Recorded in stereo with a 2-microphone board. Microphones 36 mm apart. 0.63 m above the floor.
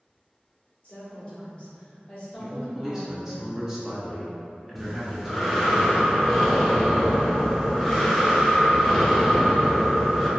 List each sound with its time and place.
0.8 s a woman speaking: 30° left (ahead or behind), 1.4 m
2.4 s a man speaking: 10° right (ahead or behind), 0.8 m
4.8 s breathing: 5° left (ahead or behind), 0.5 m